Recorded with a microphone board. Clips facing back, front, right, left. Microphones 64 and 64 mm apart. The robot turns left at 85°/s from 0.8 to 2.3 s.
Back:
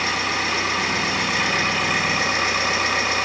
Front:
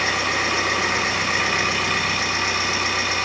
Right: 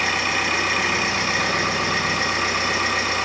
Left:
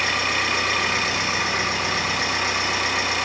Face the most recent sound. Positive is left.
turn(degrees=-130)